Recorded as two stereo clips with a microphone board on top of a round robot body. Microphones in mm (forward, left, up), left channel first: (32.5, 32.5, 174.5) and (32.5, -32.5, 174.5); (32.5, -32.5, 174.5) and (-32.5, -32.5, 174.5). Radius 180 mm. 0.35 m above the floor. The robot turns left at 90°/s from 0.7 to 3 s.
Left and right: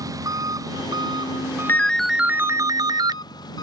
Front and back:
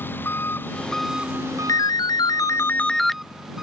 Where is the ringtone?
30° left; by 3.2 s 85° right.